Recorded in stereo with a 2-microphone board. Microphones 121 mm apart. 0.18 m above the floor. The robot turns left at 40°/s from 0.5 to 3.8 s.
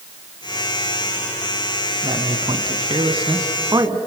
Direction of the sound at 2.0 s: 35° right (ahead or behind).